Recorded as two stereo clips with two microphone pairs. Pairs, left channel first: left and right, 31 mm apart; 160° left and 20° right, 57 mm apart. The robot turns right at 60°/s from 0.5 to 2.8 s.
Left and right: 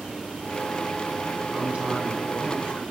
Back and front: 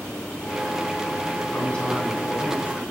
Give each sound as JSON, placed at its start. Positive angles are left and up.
{"t": 1.5, "sound": "a man speaking", "azimuth_deg": -145, "distance_m": 2.0}